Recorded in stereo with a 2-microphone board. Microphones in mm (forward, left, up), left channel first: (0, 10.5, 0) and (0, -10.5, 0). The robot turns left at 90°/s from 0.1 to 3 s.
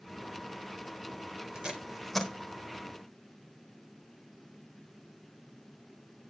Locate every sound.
1.6 s tape being pulled: 50° right (ahead or behind), 1.3 m; by 2.3 s 20° left (ahead or behind), 1.3 m